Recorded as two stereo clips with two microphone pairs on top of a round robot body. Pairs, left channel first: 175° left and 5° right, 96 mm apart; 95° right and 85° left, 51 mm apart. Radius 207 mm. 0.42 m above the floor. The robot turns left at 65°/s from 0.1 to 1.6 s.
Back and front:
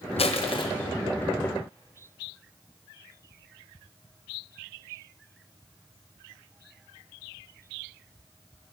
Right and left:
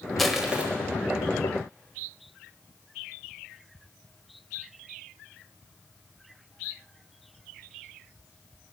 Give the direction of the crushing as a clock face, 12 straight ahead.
6 o'clock.